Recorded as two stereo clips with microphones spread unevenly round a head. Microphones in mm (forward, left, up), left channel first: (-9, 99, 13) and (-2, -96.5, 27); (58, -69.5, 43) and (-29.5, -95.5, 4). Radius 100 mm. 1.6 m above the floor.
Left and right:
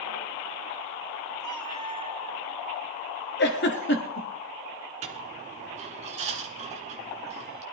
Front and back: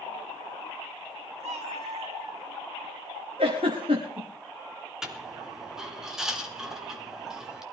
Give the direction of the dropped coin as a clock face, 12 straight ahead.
2 o'clock.